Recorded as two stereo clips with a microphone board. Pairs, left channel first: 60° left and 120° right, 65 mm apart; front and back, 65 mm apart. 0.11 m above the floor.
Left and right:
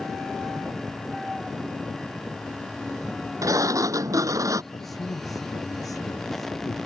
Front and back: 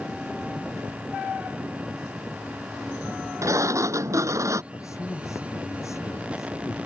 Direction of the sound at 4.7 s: 40° left.